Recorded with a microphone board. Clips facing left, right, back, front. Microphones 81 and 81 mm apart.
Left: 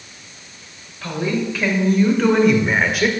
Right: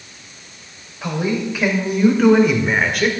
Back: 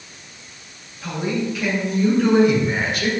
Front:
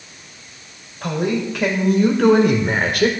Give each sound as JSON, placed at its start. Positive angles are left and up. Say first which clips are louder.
{"t": 1.0, "sound": "a man speaking", "louder": "right 1 dB, front 3 dB", "azimuth_deg": -20, "distance_m": 2.5}